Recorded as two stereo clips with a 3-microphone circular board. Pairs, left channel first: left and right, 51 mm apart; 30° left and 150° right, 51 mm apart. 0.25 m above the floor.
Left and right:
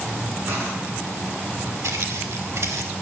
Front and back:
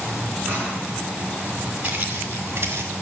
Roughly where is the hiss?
Right.